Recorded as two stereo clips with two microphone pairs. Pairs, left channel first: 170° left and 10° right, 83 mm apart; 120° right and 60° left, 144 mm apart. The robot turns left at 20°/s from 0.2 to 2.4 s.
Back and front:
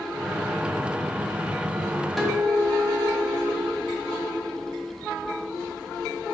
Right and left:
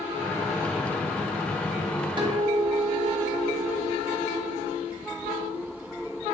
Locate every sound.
2.2 s a guitar: 80° left, 0.7 m; by 3.7 s 75° left, 0.7 m